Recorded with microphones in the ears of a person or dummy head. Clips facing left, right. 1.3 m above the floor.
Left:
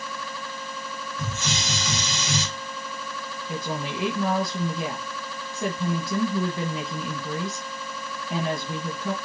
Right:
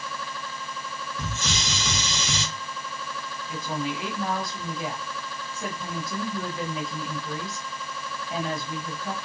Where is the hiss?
75° right (ahead or behind), 2.5 m.